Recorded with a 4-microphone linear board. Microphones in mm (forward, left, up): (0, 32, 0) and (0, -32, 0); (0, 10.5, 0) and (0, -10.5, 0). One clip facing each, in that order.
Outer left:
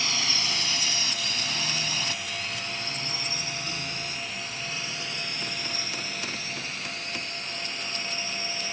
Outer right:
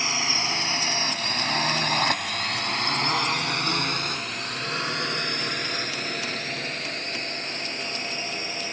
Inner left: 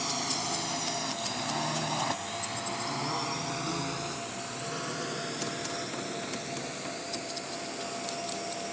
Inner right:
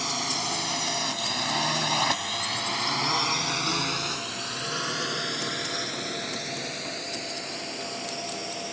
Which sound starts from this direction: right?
A drone, at 0.0 s.